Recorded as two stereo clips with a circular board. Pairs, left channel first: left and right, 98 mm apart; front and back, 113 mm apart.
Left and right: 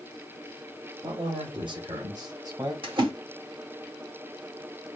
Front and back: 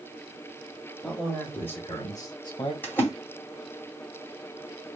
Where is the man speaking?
85° right, 1.6 m; by 2.7 s 40° right, 1.8 m.